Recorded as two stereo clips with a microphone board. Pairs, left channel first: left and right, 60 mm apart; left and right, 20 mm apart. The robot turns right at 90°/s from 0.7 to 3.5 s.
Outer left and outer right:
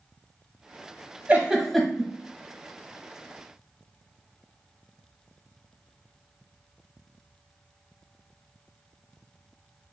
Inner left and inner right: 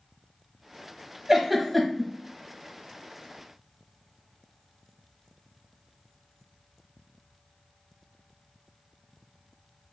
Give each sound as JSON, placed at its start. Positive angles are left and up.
{"t": 1.3, "sound": "a giggle", "side_deg": -25, "distance_m": 0.8}